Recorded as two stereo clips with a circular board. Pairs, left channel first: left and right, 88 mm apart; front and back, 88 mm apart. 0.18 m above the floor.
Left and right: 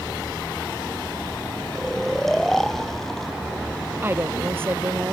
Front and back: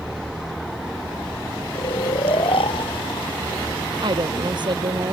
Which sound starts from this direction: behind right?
A woman speaking, at 4.0 s.